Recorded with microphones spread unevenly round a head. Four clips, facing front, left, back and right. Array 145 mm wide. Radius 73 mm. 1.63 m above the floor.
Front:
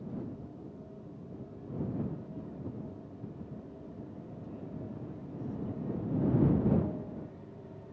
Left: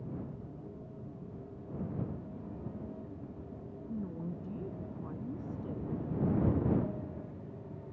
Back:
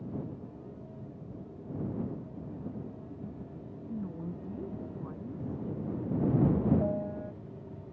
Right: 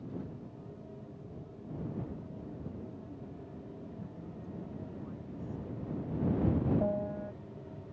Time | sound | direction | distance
3.9 | a woman speaking | 145° left | ?
6.8 | a piano | 135° right | ?